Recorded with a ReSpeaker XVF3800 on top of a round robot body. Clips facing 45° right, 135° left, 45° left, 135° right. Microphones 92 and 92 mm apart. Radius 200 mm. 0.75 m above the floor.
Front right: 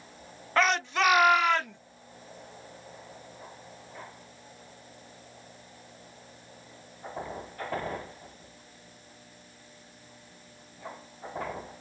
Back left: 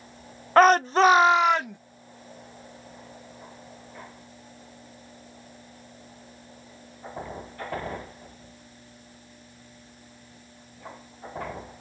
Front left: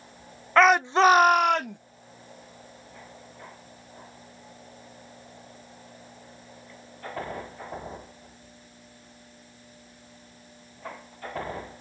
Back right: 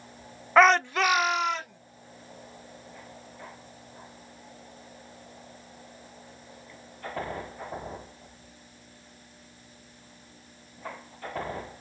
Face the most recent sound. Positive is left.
turn(degrees=60)